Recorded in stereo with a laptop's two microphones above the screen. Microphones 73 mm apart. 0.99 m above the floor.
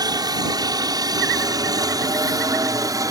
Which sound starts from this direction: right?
A helicopter, at 0.0 s.